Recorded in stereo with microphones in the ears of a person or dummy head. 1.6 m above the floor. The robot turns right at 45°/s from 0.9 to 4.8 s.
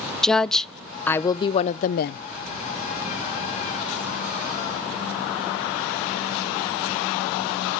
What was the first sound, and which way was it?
A woman speaking, 5° left.